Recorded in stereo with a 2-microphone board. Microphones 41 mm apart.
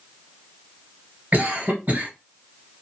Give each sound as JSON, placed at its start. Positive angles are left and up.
{"t": 1.3, "sound": "a cough", "side_deg": -40, "distance_m": 2.0}